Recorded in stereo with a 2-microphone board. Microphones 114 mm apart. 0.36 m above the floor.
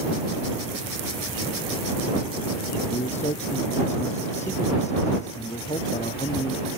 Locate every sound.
2.9 s a man speaking: 85° left